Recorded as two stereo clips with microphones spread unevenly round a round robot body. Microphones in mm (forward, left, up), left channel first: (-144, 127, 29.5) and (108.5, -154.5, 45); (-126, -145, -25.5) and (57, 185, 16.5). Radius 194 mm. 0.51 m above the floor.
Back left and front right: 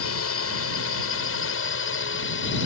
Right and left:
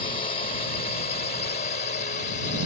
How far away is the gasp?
No gasp in this recording.